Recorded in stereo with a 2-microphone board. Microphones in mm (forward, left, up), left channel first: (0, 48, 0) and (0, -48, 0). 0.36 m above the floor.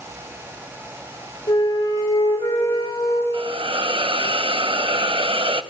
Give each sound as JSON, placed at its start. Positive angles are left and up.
{"t": 1.5, "sound": "a flute", "side_deg": 55, "distance_m": 5.5}
{"t": 3.3, "sound": "a hiss", "side_deg": -65, "distance_m": 0.7}